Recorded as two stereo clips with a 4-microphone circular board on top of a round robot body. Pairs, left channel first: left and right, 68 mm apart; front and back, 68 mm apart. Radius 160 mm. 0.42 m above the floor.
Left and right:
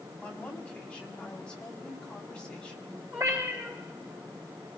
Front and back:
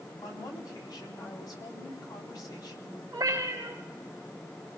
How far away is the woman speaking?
About 4 m.